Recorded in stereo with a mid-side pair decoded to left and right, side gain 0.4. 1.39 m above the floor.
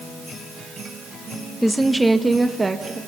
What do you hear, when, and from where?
1.6 s a woman speaking: 5° left, 1.6 m; by 3.0 s 30° right, 2.5 m